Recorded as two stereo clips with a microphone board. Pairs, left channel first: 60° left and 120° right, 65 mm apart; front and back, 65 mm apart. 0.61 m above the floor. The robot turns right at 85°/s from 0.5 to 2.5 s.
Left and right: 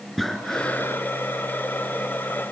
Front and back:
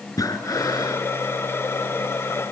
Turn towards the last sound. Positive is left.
turn(degrees=145)